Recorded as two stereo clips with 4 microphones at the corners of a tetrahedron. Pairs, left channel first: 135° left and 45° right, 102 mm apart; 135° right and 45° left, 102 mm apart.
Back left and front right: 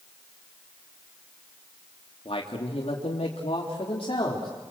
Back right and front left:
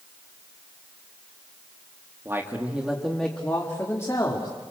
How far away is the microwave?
I don't hear a microwave.